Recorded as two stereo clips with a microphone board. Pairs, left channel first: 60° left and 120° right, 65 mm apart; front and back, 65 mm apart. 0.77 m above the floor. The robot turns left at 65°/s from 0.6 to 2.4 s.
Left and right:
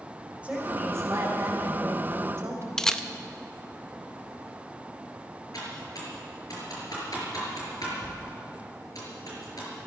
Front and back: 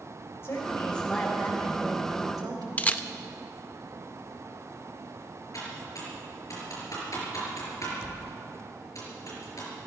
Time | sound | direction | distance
0.4 | a woman speaking | 50° right | 3.5 m
2.8 | a camera shutter | 10° right | 0.5 m
5.5 | typing on a keyboard | 35° left | 5 m